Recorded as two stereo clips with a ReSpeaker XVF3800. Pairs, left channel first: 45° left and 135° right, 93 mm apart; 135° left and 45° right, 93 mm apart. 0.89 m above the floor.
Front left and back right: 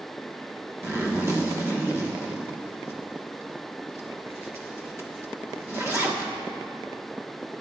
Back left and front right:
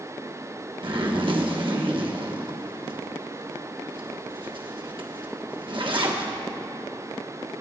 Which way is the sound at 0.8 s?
75° right.